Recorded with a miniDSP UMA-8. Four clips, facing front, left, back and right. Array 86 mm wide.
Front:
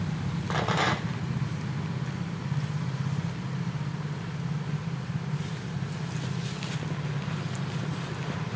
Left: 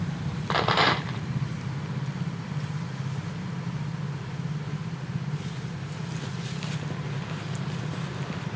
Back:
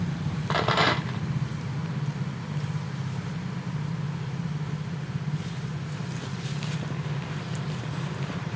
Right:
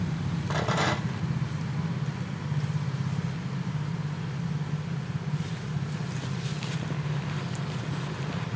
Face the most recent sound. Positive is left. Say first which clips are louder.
# left 5 dB, back 4 dB
turn(degrees=115)